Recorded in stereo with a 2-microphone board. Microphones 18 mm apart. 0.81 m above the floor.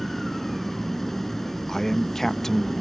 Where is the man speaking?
25° left (ahead or behind).